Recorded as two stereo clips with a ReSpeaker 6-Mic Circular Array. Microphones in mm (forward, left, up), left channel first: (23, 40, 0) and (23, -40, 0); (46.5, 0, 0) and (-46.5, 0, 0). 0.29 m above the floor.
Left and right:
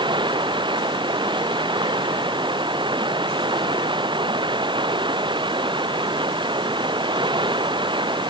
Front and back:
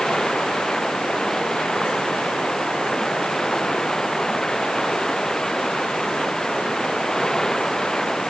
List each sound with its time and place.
0.0 s running water: 85° right